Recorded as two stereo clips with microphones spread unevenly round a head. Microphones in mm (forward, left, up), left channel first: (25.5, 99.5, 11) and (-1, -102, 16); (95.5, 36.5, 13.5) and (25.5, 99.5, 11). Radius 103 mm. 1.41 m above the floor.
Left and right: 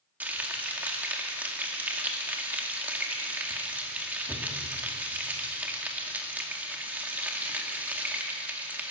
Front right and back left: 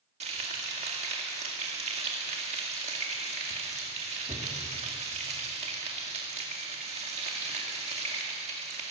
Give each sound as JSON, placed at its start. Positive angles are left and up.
{"t": 0.2, "sound": "frying", "azimuth_deg": 180, "distance_m": 2.0}